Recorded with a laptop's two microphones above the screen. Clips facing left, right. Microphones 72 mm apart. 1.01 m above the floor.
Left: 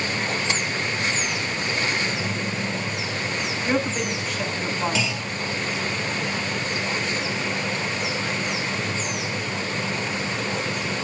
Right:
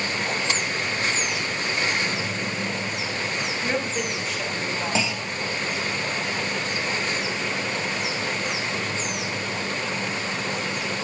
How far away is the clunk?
About 1.6 m.